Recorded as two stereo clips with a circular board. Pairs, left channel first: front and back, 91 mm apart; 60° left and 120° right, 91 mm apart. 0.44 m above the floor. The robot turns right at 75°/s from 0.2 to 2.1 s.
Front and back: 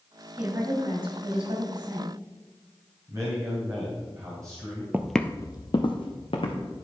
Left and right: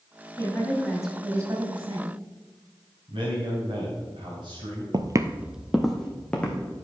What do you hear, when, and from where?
0.4 s a woman speaking: 105° left, 2.5 m; by 2.2 s 125° right, 2.5 m
3.1 s a man speaking: 125° right, 2.5 m
4.9 s footsteps: 120° right, 0.6 m; by 6.8 s 15° right, 2.5 m